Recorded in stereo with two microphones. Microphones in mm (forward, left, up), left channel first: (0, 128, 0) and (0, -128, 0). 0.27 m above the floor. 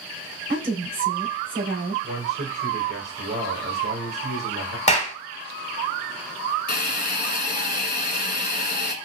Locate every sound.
0.5 s a woman speaking: 55° right (ahead or behind), 2.5 m
2.0 s a man speaking: 65° right (ahead or behind), 3.5 m
4.9 s a clap: 25° left (ahead or behind), 1.1 m
6.7 s a hiss: 40° left (ahead or behind), 0.7 m